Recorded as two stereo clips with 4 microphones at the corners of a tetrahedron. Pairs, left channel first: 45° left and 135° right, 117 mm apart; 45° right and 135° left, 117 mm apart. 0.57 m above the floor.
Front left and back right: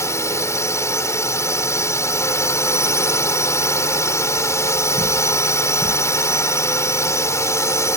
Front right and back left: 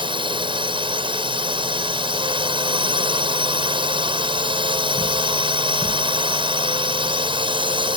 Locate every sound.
0.0 s a drone: 105° left